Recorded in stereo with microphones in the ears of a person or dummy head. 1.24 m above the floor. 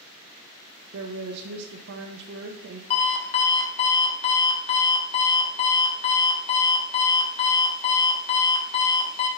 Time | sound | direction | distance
0.9 | a woman speaking | 70° right (ahead or behind) | 0.6 m
2.9 | an alarm clock | 40° left (ahead or behind) | 0.9 m